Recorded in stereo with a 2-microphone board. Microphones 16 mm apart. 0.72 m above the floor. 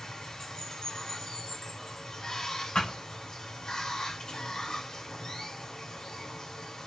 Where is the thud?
80° left, 2.5 m.